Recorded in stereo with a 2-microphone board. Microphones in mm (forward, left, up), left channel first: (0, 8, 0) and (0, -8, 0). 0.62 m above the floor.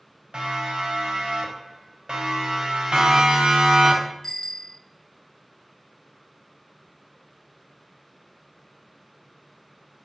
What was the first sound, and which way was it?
A siren, 75° right (ahead or behind).